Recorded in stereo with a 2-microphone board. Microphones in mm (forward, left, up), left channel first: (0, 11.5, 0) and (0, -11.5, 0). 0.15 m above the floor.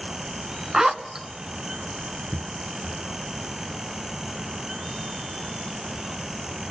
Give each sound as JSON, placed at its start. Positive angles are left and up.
{"t": 0.7, "sound": "a zipper", "side_deg": -25, "distance_m": 0.7}
{"t": 2.3, "sound": "footsteps", "side_deg": 40, "distance_m": 0.6}